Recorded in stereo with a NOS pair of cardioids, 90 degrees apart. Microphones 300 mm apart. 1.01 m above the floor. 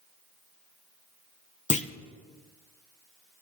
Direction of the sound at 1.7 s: 25° left.